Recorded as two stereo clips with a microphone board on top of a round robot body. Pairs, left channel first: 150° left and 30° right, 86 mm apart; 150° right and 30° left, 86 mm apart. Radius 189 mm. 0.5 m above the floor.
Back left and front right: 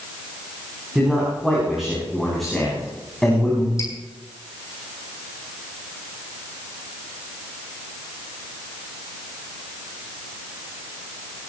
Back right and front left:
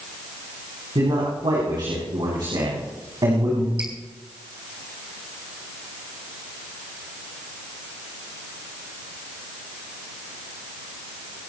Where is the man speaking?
55° left, 7 m; by 3.7 s 70° left, 6 m.